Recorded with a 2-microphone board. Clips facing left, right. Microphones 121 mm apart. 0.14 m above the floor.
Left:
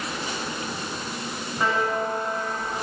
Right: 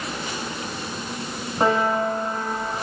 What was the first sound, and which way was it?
A piano, 40° right (ahead or behind).